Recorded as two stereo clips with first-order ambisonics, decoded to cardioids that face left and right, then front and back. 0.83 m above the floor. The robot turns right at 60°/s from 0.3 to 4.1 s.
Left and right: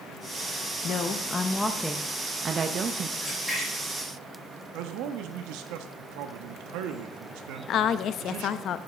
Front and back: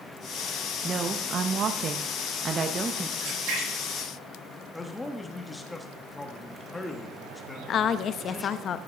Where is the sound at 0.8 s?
120° left, 0.7 m; by 3.1 s 105° right, 0.7 m.